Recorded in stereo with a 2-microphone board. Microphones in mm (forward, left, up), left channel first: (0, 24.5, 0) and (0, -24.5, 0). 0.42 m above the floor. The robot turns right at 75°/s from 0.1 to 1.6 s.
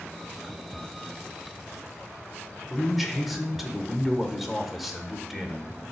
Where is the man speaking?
Centre (ahead or behind), 1.2 m.